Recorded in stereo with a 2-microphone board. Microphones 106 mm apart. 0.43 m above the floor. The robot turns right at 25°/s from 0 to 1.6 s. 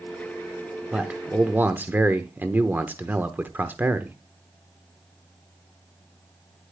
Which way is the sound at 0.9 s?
10° right (ahead or behind).